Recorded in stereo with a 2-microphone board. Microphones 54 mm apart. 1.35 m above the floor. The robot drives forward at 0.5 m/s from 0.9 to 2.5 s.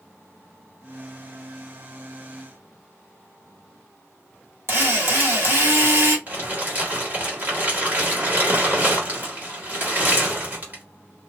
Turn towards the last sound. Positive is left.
turn(degrees=-35)  # may be behind; listen again after turning